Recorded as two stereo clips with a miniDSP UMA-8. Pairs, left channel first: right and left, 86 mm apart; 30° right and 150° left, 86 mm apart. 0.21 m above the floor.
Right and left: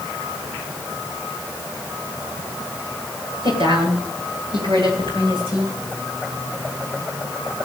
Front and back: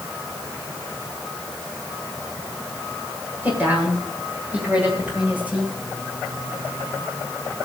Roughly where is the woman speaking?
Left.